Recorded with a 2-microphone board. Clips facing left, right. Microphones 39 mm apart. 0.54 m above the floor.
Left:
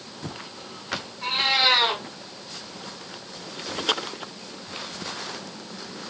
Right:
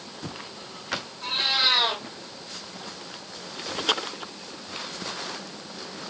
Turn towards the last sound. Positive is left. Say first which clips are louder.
# left 3 dB
turn(degrees=45)  # may be behind; listen again after turning